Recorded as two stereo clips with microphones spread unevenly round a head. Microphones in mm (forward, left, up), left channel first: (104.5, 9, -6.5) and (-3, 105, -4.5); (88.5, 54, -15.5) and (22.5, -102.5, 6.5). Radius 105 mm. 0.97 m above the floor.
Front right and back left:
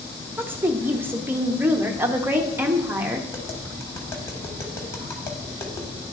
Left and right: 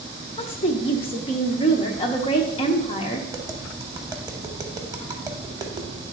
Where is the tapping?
90° right, 0.8 m.